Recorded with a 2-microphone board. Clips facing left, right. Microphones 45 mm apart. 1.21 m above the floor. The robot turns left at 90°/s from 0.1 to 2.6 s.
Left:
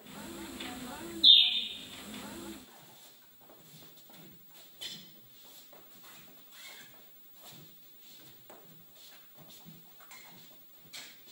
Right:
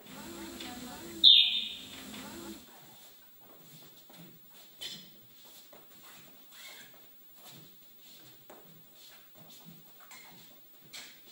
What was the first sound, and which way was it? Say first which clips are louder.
A bird: even; 65° right (ahead or behind).